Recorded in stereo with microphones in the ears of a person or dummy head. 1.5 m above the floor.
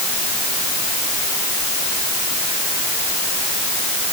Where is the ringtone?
I don't hear a ringtone.